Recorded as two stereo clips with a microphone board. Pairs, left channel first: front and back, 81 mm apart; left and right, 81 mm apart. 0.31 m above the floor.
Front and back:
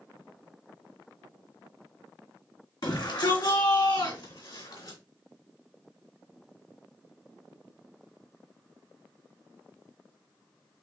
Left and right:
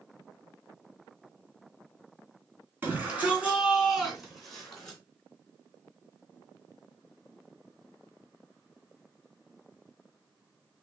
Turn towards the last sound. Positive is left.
turn(degrees=10)